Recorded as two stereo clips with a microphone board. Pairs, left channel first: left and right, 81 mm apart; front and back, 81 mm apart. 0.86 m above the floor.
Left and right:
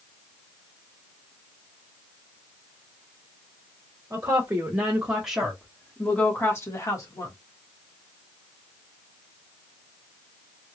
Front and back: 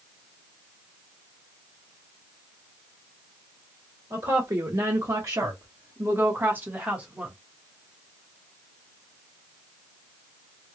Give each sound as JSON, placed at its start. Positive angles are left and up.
{"t": 4.1, "sound": "a woman speaking", "azimuth_deg": -140, "distance_m": 1.5}